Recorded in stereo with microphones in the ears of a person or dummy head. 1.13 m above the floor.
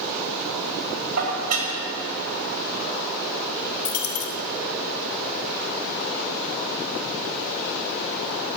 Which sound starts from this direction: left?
A dropped coin, at 3.9 s.